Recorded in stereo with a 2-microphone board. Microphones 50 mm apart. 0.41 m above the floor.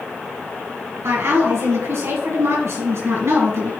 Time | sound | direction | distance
1.0 | a woman speaking | 70° right (ahead or behind) | 4 m